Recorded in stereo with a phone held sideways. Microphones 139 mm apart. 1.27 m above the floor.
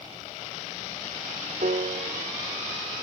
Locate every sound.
1.6 s a piano: 65° right (ahead or behind), 0.6 m